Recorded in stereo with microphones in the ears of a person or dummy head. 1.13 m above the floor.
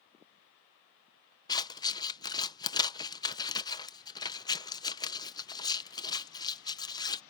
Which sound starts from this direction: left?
Scissors, at 1.5 s.